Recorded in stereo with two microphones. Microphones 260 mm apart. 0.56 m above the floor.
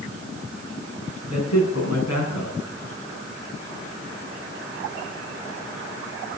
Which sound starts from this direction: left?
A man speaking, at 1.3 s.